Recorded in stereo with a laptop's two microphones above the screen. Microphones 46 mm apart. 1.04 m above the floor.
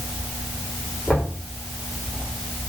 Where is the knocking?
20° left (ahead or behind), 4 m.